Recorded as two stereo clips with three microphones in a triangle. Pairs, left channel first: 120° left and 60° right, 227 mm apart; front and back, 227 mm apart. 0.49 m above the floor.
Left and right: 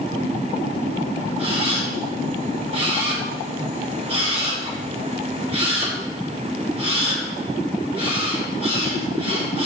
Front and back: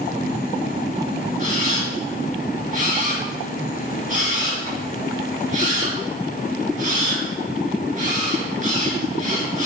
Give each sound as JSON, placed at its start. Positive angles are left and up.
{"t": 1.4, "sound": "a camera shutter", "azimuth_deg": -125, "distance_m": 3.5}